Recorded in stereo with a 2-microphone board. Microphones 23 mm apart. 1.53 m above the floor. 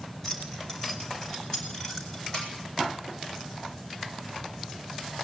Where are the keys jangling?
15° left (ahead or behind), 5.5 m.